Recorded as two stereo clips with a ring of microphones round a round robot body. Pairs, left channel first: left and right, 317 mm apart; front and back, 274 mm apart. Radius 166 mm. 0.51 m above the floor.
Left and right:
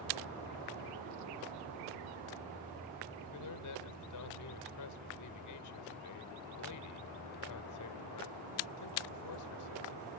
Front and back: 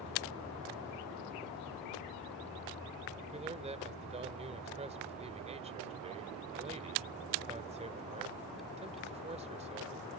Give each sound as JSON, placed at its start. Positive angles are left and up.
{"t": 3.3, "sound": "a man speaking", "azimuth_deg": 115}